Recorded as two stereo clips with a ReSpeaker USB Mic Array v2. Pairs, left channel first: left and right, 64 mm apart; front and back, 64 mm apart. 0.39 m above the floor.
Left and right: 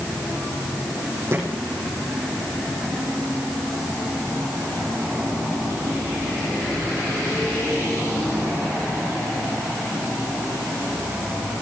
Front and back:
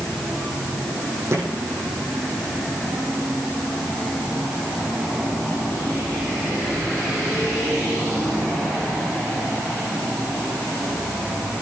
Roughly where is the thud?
Behind right.